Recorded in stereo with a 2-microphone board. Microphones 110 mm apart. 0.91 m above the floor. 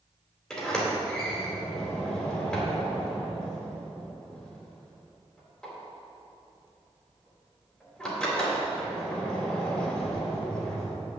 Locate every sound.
0.5 s a sliding door: 5° left (ahead or behind), 3 m